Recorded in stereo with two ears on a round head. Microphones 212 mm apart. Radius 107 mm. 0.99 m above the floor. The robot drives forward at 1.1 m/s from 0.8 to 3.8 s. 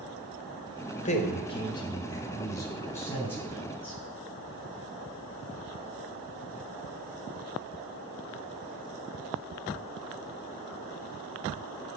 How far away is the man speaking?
About 1.3 m.